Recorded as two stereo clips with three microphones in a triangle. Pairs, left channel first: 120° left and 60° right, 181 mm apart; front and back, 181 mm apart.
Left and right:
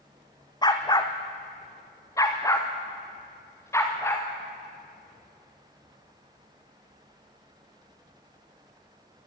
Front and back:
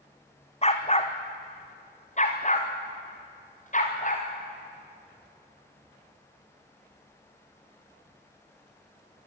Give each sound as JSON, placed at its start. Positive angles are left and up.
{"t": 0.6, "sound": "a dog barking", "azimuth_deg": 55, "distance_m": 2.0}